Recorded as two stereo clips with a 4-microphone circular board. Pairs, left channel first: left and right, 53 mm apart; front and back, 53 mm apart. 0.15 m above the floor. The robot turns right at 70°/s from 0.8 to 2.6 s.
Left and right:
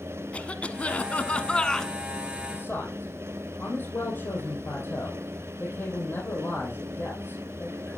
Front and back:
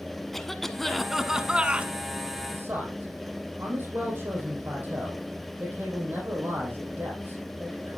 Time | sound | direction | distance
0.3 | a cough | 75° left | 1.1 m
2.5 | a man speaking | 125° left | 5.5 m